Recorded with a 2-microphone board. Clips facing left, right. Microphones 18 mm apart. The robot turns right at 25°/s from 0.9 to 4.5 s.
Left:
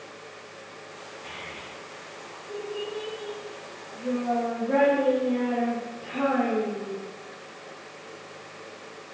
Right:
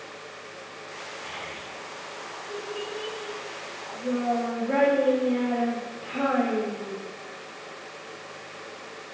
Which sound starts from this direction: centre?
A child speaking, at 1.2 s.